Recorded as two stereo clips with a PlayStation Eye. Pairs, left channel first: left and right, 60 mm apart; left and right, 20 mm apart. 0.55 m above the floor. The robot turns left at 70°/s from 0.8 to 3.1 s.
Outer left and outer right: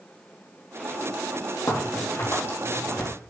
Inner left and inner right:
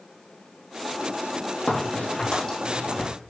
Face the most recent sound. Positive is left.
turn(degrees=-5)  # may be behind; listen again after turning